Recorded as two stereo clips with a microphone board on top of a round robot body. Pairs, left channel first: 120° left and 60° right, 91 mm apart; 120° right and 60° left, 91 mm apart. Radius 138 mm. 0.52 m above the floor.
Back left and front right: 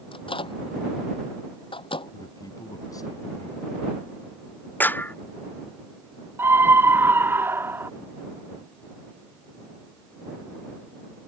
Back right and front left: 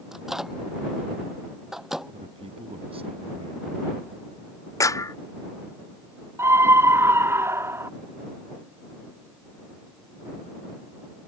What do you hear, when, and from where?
0.1 s a microwave: 145° left
2.1 s a man speaking: 70° left
4.8 s a clap: 170° right
6.4 s a scream: straight ahead